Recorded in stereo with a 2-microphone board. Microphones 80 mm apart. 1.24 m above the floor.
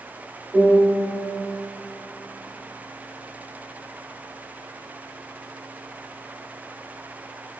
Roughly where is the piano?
Centre.